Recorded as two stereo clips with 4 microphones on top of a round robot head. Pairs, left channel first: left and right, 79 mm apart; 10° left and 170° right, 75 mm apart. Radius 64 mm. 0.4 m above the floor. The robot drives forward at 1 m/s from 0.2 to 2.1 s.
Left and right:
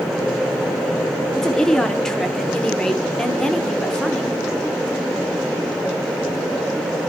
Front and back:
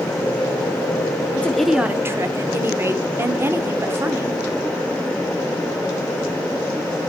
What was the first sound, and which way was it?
A woman speaking, 20° left.